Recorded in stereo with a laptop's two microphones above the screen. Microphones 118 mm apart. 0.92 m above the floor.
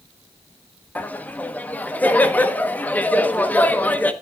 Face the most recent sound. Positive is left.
turn(degrees=15)  # may be behind; listen again after turning